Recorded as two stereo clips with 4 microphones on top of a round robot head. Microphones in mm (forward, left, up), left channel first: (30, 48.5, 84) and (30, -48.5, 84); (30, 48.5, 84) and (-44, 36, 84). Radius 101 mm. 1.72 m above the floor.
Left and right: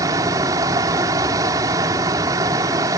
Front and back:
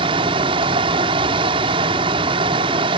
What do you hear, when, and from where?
0.0 s running water: 155° right